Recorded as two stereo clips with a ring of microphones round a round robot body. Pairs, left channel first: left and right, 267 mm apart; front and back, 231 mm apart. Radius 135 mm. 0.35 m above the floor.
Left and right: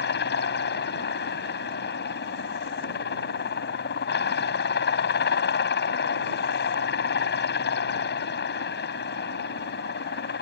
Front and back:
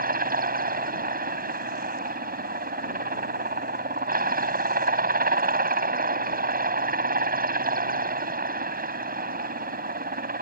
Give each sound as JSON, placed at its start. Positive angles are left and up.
{"t": 0.0, "sound": "a helicopter", "azimuth_deg": 135}